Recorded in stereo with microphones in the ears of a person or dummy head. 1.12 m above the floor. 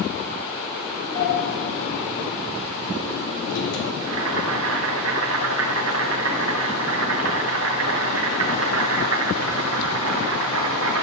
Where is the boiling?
75° right (ahead or behind), 2.5 m.